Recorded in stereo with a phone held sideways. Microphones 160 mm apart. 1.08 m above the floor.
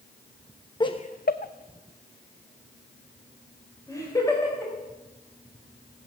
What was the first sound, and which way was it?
Laughter, 30° left (ahead or behind).